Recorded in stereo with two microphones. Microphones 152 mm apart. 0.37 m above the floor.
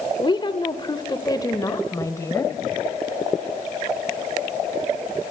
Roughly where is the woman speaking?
Left.